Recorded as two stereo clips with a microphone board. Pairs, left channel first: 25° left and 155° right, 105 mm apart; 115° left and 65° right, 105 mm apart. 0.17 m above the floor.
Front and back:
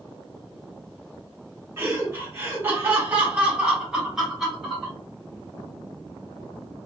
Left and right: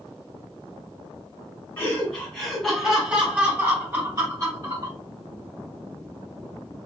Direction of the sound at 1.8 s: 170° left.